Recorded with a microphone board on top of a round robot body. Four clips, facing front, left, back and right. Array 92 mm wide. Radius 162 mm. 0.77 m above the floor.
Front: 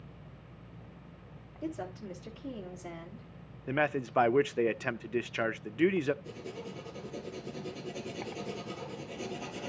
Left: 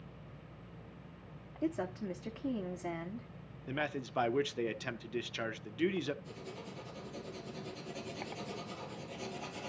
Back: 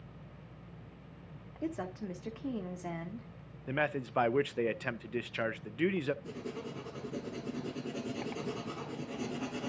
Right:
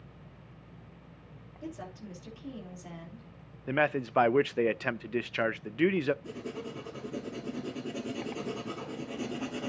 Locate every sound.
1.6 s a woman speaking: 135° left, 2.5 m
3.7 s a man speaking: 70° right, 0.6 m
6.2 s writing: 125° right, 2.5 m